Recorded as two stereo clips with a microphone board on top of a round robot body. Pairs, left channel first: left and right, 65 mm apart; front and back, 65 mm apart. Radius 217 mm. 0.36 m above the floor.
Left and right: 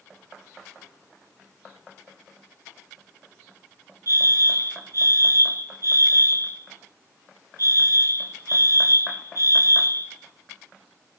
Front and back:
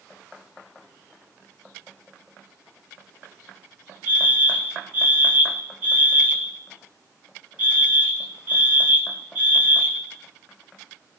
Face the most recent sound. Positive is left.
turn(degrees=-120)